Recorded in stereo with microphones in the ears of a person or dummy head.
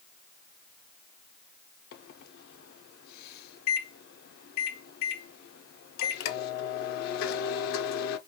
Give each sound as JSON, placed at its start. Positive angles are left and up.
{"t": 1.9, "sound": "a microwave", "side_deg": 55, "distance_m": 0.6}